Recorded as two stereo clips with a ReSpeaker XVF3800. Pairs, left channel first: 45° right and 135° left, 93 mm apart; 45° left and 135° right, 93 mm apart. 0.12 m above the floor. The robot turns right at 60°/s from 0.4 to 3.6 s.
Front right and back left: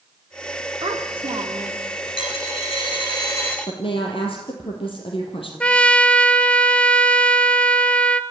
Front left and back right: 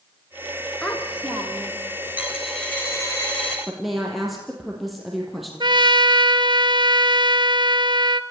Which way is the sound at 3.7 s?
45° right.